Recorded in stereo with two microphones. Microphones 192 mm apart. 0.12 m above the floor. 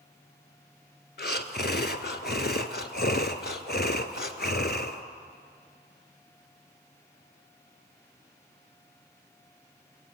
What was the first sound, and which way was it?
Breathing, 60° left (ahead or behind).